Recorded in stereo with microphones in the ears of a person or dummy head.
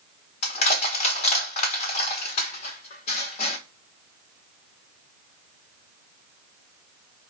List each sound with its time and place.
0.4 s crushing: 40° left (ahead or behind), 1.1 m